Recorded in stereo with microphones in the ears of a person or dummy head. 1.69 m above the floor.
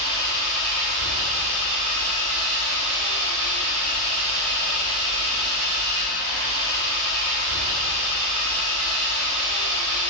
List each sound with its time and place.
0.0 s an engine running: 75° right (ahead or behind), 5.5 m